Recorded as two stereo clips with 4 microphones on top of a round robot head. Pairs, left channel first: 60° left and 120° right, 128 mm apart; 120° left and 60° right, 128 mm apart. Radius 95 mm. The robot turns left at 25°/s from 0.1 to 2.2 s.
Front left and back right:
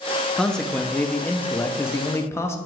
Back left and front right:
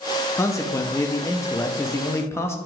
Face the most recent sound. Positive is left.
turn(degrees=90)